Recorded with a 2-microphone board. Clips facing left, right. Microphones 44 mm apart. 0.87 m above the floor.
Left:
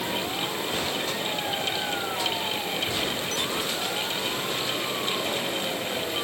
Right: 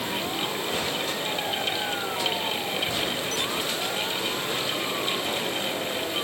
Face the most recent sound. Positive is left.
No sound to turn to.